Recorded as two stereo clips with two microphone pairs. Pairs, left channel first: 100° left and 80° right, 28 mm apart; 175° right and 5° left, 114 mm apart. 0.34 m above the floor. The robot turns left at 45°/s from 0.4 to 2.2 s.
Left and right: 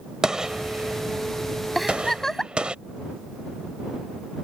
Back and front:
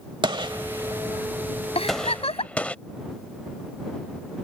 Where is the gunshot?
20° right; by 2.8 s 105° right.